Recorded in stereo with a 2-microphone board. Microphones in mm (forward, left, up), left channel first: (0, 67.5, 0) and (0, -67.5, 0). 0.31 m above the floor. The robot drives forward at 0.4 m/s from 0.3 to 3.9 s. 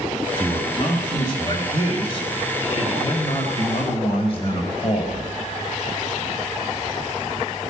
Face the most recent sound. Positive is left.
turn(degrees=45)  # may be behind; listen again after turning